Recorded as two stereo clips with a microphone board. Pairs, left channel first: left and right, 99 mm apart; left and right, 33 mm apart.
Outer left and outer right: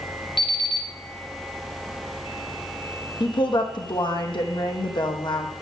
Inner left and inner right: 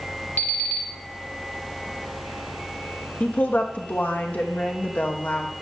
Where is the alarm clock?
60° left (ahead or behind), 1.1 m.